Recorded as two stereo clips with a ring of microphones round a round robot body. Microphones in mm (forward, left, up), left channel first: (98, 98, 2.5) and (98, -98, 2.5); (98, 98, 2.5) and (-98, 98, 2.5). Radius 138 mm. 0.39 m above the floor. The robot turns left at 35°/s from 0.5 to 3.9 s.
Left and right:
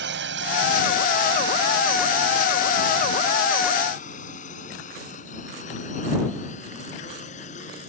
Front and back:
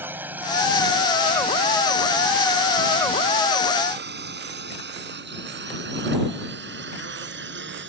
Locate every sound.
0.0 s a drone: 100° right; by 7.9 s 155° left